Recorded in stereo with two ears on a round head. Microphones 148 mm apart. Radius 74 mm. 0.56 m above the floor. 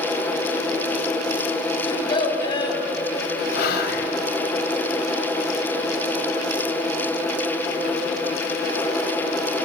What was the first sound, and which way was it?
A child speaking, 30° left (ahead or behind).